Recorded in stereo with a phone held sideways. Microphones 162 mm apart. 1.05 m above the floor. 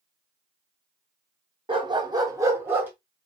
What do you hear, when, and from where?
1.7 s a dog barking: 30° right (ahead or behind), 0.7 m; by 2.9 s 10° right (ahead or behind), 1.0 m